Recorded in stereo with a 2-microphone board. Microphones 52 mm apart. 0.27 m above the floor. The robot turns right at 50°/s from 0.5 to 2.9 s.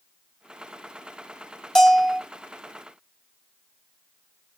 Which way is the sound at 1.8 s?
10° left (ahead or behind).